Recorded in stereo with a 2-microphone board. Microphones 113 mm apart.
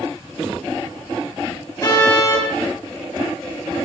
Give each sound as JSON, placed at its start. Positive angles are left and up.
{"t": 1.8, "sound": "a car horn", "side_deg": 30, "distance_m": 9.0}